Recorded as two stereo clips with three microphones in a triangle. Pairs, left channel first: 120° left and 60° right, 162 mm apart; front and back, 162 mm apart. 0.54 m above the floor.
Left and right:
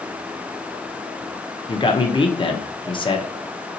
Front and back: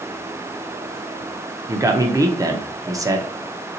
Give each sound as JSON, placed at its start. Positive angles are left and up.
{"t": 1.7, "sound": "a man speaking", "azimuth_deg": 130, "distance_m": 0.7}